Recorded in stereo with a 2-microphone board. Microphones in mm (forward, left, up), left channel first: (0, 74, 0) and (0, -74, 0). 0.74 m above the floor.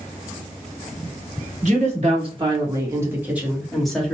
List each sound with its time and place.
1.6 s a woman speaking: 50° right (ahead or behind), 1.3 m; by 4.2 s 5° left (ahead or behind), 1.5 m